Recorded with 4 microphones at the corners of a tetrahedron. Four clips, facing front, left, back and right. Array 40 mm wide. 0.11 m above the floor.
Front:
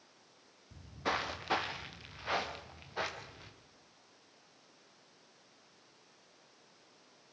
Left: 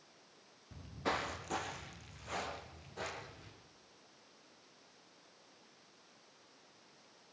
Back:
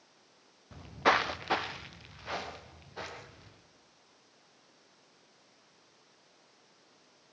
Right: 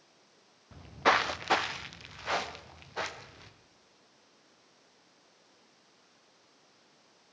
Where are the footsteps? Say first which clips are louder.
Right 12 dB, back 9 dB; 155° right, 1.2 m; by 3.5 s 60° right, 4 m.